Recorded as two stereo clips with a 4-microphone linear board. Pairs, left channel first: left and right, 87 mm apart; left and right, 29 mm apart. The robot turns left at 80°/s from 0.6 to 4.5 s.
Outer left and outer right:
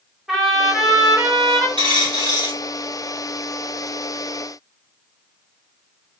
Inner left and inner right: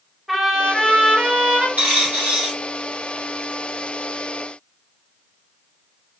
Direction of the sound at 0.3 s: 5° right.